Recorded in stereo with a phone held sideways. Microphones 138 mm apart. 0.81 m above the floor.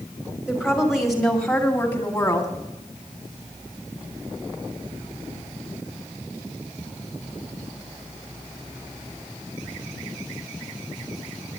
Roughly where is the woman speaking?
Centre.